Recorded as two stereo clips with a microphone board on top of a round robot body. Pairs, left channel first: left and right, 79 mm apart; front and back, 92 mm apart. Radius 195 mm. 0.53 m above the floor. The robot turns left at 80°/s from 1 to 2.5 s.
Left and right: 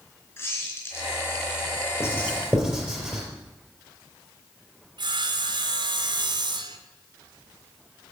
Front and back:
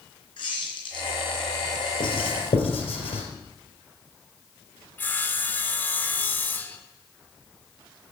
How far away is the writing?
About 4 m.